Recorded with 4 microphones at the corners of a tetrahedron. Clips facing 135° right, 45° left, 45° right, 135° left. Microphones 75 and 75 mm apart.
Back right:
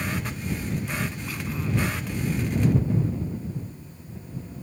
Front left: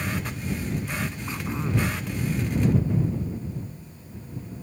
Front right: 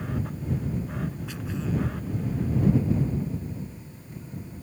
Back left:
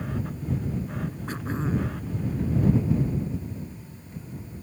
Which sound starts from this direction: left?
Throat clearing, at 1.3 s.